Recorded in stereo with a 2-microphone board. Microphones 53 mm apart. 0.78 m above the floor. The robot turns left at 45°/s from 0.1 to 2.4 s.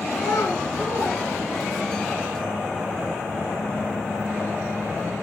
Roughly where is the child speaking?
Left.